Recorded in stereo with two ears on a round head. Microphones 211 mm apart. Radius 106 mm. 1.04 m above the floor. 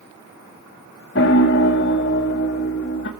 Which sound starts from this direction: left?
A piano, at 1.1 s.